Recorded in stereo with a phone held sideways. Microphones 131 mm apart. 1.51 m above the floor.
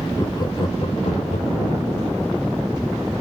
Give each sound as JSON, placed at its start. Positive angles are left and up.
{"t": 0.2, "sound": "laughter", "side_deg": 30, "distance_m": 1.1}